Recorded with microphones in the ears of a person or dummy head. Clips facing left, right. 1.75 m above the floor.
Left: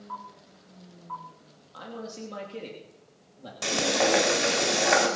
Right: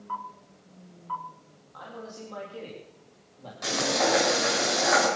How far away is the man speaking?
About 3 m.